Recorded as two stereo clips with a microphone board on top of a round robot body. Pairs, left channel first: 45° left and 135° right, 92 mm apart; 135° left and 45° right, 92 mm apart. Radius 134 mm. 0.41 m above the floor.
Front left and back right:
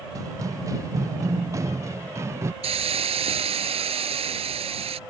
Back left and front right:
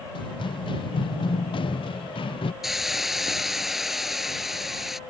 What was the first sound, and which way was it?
Running footsteps, 170° left.